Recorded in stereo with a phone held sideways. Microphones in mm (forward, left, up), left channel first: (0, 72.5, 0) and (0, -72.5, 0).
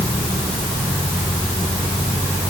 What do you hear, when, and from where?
Only background noise.